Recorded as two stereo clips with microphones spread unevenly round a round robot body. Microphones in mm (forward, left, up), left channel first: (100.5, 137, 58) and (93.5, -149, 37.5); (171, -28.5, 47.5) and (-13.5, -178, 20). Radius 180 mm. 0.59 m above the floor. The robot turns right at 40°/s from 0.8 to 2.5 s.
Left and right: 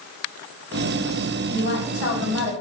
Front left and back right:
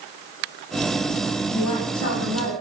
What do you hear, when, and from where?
1.5 s a woman speaking: 30° left, 4 m; by 2.5 s 70° left, 4 m